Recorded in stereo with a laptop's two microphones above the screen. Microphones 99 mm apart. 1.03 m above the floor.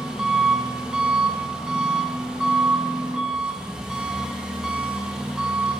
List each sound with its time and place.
0.0 s an engine running: 5° right (ahead or behind), 0.8 m